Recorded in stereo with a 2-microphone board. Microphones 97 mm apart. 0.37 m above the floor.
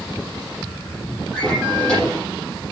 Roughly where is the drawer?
Centre.